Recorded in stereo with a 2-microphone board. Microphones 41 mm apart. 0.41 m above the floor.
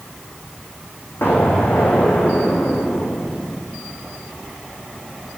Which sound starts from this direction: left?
An explosion, at 1.2 s.